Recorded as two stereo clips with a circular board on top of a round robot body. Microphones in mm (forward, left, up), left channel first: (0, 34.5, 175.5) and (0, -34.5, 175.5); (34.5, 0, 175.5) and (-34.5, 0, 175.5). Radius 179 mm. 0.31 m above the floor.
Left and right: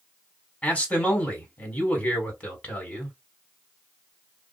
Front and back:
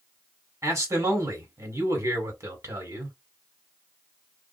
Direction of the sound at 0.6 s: 155° left.